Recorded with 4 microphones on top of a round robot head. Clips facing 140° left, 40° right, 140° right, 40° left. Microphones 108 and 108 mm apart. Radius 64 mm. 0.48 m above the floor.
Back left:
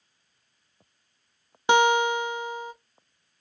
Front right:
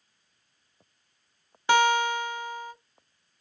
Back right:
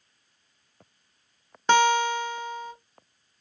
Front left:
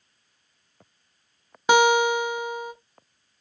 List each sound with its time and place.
1.7 s a guitar: 105° left, 0.6 m